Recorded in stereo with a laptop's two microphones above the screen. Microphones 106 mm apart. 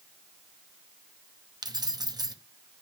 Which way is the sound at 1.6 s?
40° right (ahead or behind).